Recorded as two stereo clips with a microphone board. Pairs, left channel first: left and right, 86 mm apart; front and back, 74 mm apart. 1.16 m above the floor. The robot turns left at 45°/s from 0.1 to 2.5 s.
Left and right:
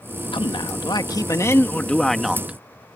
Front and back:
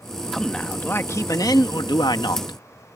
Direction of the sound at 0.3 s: 85° left.